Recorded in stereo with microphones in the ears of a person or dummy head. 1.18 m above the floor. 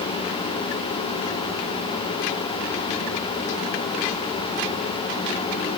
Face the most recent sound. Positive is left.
No sound to turn to.